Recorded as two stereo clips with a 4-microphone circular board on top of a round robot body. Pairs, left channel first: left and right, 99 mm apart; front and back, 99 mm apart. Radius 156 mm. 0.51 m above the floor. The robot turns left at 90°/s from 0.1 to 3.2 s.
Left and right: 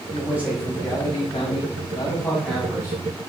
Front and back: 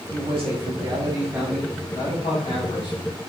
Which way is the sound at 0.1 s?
140° right.